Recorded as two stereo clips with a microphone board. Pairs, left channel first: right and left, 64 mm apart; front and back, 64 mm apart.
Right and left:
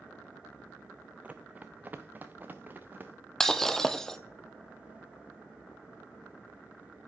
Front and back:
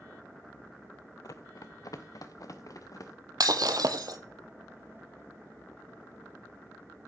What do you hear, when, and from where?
1.2 s running footsteps: 20° left, 0.6 m; by 3.1 s 30° left, 1.7 m
3.4 s breaking glass: 175° right, 0.6 m